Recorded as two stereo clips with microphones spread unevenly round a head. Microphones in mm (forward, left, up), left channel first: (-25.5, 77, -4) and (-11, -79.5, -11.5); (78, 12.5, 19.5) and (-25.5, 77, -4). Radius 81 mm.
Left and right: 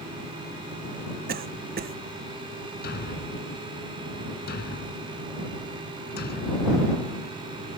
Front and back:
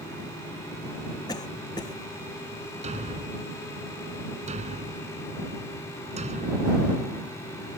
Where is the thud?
120° left.